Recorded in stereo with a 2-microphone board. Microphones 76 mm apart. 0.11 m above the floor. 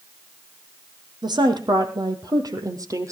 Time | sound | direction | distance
1.2 | a woman speaking | 70° right (ahead or behind) | 3.5 m